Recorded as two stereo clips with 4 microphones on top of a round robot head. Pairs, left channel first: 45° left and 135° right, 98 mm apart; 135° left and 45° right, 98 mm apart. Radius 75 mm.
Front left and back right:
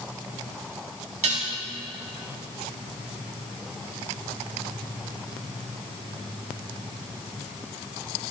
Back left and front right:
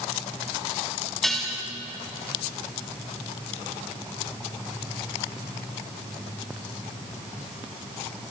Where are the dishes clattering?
135° right, 5.5 m.